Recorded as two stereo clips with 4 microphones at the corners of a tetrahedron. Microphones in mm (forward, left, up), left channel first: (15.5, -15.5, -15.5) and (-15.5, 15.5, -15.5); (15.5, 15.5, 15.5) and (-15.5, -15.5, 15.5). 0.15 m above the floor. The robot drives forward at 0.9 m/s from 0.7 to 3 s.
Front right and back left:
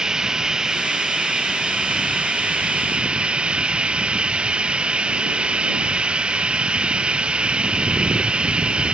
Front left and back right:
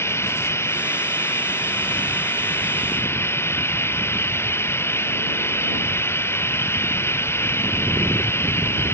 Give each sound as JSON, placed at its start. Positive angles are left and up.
{"t": 0.0, "sound": "running water", "azimuth_deg": 60}